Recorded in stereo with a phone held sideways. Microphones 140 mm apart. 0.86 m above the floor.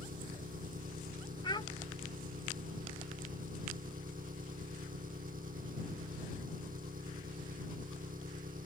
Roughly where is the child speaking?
Left.